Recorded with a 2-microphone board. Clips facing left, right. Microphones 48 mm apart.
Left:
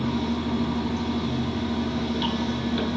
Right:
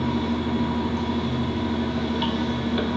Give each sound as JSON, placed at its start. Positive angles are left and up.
{"t": 0.0, "sound": "running water", "side_deg": -15, "distance_m": 0.9}